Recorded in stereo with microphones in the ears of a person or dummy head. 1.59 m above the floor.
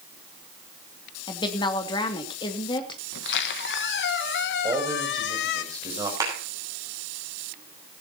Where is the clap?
20° right (ahead or behind), 9 m.